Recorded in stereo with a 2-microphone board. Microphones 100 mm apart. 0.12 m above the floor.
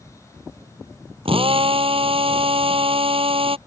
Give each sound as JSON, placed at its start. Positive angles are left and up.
{"t": 1.2, "sound": "a drill", "side_deg": -65}